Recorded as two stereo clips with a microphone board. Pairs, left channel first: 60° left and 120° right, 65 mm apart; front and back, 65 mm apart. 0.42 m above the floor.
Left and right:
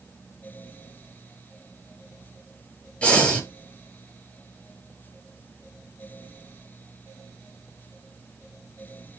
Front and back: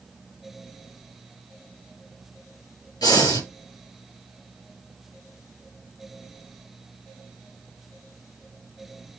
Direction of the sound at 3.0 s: 10° right.